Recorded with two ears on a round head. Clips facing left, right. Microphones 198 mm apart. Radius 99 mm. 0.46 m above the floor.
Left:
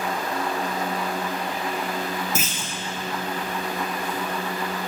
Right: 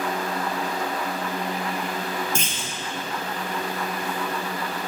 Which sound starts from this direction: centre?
A clunk, at 2.4 s.